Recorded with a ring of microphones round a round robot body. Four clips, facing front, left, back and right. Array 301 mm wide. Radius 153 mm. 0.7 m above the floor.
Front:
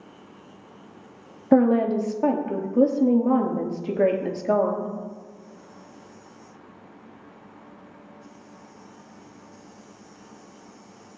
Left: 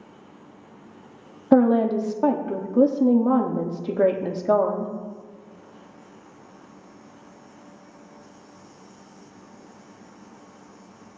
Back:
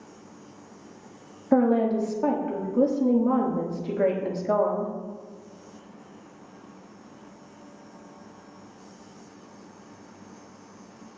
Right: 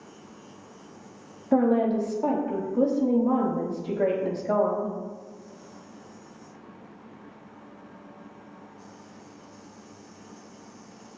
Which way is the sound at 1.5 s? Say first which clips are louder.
Left 4 dB, front 3 dB; 60° left.